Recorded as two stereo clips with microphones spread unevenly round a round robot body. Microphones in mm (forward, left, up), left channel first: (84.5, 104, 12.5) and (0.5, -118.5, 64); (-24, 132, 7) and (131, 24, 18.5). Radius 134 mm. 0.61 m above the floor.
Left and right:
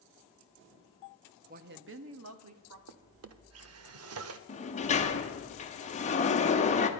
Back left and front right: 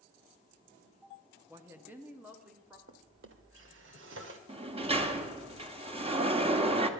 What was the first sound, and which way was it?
A woman speaking, 95° right.